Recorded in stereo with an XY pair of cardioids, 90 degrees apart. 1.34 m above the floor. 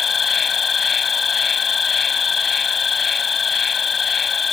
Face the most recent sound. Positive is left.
turn(degrees=50)